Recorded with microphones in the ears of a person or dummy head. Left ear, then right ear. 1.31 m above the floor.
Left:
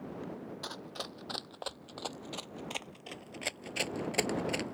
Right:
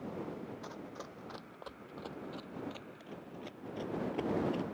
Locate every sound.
0.6 s running footsteps: 40° left (ahead or behind); by 4.7 s 30° left (ahead or behind)